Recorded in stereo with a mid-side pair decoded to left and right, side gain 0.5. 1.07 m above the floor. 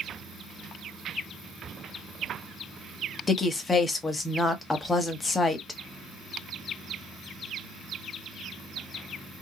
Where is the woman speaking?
25° left, 1.4 m.